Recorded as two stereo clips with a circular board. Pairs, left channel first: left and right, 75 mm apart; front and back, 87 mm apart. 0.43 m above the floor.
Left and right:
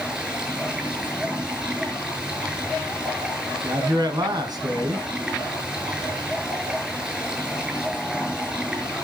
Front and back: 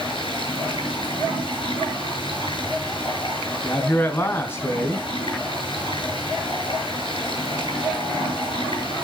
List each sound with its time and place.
0.0 s running water: 10° right, 8.5 m
3.6 s a man speaking: 65° right, 3.5 m